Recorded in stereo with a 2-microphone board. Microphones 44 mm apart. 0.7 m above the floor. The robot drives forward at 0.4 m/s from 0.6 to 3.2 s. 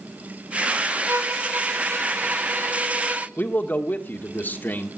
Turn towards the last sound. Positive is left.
turn(degrees=50)  # may be behind; listen again after turning